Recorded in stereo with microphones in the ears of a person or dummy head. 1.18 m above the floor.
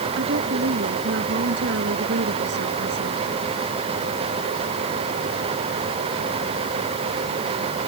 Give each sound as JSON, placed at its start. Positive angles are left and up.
{"t": 0.2, "sound": "a woman speaking", "side_deg": -60}